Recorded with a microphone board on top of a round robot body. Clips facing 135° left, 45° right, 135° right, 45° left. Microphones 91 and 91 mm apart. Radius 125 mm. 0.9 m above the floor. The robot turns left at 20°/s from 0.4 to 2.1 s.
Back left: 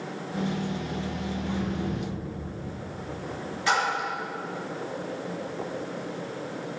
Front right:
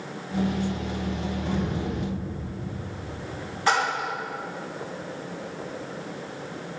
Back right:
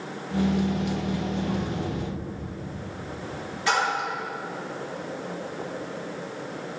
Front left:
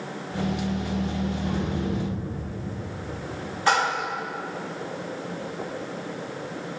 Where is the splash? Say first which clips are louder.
Front right 2 dB, front left 2 dB; straight ahead, 2.5 m.